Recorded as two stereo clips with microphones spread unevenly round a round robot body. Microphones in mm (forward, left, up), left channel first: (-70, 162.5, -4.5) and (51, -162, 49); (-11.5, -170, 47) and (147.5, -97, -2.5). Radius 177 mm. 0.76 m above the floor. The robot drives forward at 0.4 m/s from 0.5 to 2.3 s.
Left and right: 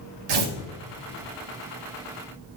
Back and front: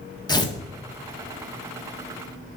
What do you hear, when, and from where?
0.3 s tearing paper: 80° right, 1.7 m